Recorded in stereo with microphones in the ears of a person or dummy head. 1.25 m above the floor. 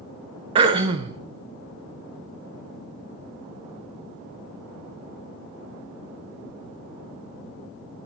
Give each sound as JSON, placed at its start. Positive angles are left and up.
{"t": 0.6, "sound": "throat clearing", "side_deg": -25, "distance_m": 0.5}